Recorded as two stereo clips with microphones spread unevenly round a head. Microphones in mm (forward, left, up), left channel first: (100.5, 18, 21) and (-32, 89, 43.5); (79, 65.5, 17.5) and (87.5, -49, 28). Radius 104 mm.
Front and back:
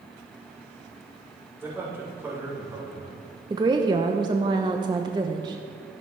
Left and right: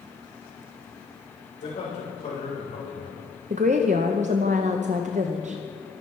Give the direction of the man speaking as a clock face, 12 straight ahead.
10 o'clock.